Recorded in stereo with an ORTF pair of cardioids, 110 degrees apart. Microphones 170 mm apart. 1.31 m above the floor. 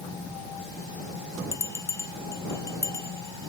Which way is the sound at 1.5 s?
15° left.